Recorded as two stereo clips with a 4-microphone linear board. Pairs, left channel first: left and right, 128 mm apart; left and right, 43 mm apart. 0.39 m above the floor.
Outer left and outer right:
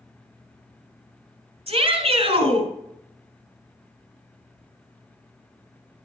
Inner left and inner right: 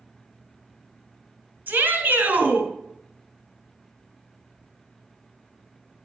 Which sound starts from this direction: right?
A shout, at 1.7 s.